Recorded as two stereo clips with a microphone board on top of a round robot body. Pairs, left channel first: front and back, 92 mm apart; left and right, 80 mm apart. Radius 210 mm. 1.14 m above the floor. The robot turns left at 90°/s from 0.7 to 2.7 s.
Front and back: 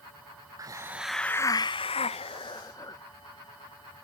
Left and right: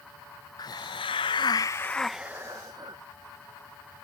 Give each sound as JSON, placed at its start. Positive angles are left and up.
{"t": 0.6, "sound": "a hiss", "azimuth_deg": 125}